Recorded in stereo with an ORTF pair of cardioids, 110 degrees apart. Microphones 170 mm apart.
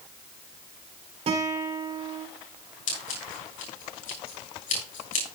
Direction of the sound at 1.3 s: 35° right.